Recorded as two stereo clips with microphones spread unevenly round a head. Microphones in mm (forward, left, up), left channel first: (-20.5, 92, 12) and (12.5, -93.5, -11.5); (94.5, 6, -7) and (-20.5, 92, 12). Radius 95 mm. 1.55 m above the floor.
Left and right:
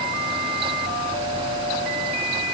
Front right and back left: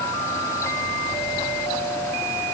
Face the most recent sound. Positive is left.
No sound to turn to.